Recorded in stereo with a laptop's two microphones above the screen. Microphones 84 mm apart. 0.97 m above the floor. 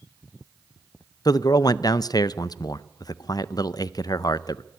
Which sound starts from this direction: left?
A man speaking, at 1.2 s.